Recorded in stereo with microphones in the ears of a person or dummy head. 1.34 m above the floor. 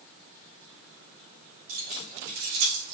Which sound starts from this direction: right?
Keys jangling, at 1.7 s.